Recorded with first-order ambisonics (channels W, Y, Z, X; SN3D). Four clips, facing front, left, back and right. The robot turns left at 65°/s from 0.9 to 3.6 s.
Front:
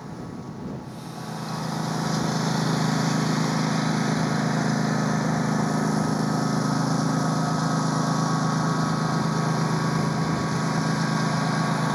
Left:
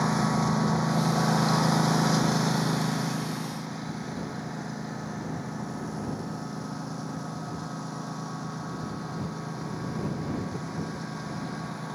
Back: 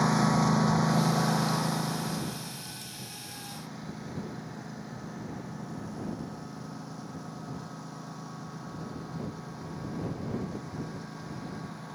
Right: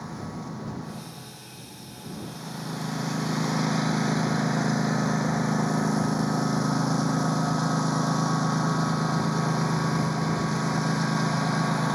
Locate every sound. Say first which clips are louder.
0.0 s a lawn mower: left 11 dB, back 12 dB; 140° left; by 11.9 s 35° right